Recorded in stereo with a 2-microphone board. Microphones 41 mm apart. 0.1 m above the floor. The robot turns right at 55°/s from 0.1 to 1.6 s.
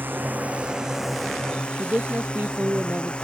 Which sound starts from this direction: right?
A woman speaking, at 1.8 s.